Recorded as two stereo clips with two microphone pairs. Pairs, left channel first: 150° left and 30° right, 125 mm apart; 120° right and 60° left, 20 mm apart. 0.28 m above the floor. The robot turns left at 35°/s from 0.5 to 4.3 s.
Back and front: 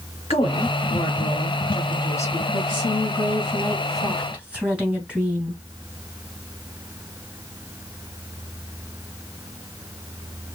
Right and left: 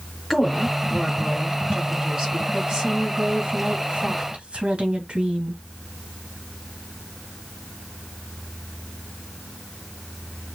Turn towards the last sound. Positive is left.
turn(degrees=55)